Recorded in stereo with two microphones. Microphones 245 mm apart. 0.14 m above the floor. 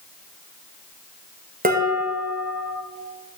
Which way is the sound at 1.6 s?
35° right (ahead or behind).